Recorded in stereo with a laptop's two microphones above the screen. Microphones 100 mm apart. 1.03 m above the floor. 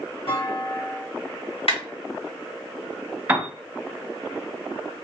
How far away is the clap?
About 2.0 m.